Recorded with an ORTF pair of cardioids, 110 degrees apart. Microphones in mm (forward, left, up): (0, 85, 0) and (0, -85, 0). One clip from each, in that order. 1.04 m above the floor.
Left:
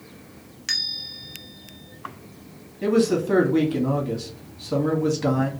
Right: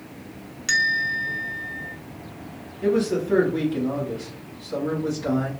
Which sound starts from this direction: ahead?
A bell, at 0.7 s.